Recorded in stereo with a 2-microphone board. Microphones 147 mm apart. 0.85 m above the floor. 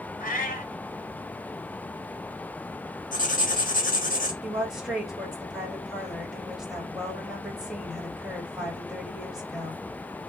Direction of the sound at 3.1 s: 65° left (ahead or behind).